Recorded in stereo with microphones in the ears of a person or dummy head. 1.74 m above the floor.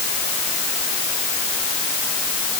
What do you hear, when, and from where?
Only background noise.